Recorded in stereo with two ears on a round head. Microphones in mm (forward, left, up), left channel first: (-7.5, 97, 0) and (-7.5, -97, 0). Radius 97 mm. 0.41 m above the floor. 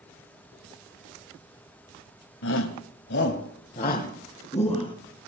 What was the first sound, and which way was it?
A shout, 65° left (ahead or behind).